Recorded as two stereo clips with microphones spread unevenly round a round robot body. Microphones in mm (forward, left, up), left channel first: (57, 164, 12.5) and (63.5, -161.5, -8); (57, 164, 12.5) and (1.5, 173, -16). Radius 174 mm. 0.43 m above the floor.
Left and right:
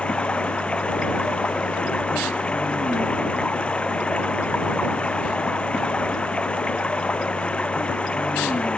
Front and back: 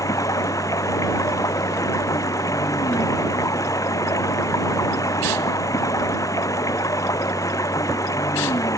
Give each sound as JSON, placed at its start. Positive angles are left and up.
{"t": 0.0, "sound": "running water", "azimuth_deg": 5}